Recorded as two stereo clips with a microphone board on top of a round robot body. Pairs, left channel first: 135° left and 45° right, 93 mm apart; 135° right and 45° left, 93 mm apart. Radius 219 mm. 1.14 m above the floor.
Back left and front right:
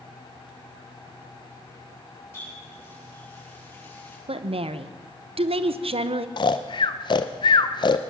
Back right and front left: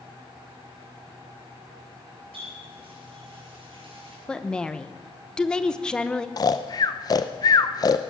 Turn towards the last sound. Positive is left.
turn(degrees=175)